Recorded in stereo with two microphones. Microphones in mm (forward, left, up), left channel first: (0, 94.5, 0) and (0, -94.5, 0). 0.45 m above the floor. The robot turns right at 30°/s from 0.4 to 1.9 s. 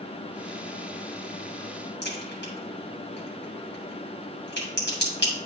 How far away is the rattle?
I don't hear a rattle.